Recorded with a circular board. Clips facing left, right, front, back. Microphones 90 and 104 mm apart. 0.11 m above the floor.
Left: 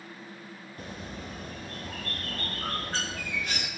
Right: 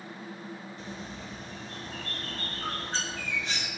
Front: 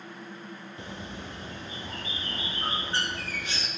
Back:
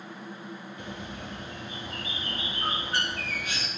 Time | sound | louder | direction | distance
0.8 | a bird | even, front 1 dB | 55° left | 1.9 m